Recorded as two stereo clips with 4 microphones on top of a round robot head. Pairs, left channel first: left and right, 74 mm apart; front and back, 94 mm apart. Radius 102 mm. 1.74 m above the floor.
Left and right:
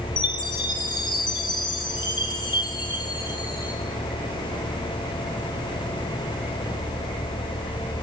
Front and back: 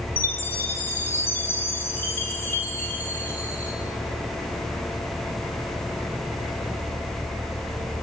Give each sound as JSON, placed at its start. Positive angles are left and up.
{"t": 0.2, "sound": "a chime", "azimuth_deg": 70, "distance_m": 8.0}